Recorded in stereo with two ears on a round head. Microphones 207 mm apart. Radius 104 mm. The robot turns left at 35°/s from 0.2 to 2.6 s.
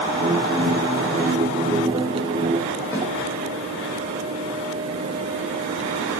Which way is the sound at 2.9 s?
10° left (ahead or behind).